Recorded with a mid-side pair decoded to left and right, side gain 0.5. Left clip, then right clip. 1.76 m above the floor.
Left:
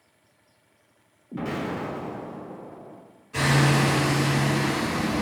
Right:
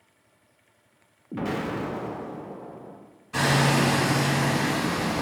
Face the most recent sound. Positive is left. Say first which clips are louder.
# even
turn(degrees=-65)